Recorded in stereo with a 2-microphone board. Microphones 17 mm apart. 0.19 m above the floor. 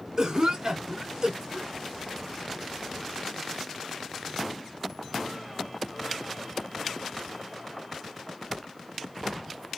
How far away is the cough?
About 2 m.